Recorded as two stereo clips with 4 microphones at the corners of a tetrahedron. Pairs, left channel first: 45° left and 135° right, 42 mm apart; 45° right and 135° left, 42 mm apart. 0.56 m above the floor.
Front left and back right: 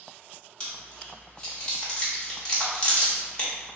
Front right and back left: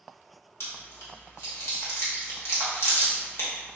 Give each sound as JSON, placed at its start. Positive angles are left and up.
{"t": 0.6, "sound": "chewing", "azimuth_deg": -25, "distance_m": 1.0}